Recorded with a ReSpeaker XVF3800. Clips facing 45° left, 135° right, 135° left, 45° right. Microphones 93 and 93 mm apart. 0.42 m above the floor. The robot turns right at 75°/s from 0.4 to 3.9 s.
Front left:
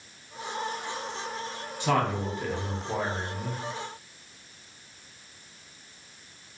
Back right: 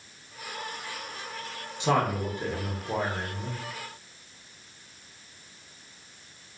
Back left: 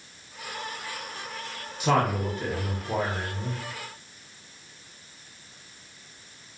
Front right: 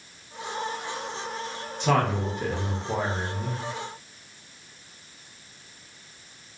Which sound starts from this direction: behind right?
A man speaking, at 1.8 s.